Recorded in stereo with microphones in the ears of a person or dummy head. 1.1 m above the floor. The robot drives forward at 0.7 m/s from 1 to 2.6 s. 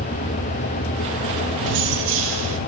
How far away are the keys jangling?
About 3 m.